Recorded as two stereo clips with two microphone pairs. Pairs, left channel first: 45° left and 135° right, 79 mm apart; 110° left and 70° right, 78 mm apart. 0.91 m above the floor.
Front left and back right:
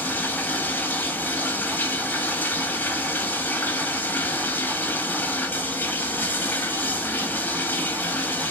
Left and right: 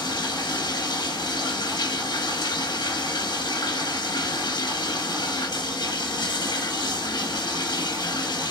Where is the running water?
115° left, 0.8 m.